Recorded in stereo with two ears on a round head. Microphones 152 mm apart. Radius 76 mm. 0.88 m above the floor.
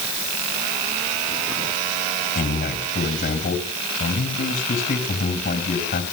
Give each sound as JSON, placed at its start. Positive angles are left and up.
{"t": 2.4, "sound": "a man speaking", "side_deg": 50, "distance_m": 5.0}